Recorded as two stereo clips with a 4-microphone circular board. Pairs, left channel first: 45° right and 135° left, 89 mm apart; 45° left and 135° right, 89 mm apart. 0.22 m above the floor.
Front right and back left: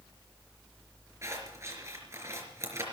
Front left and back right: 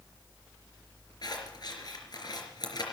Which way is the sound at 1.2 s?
80° left.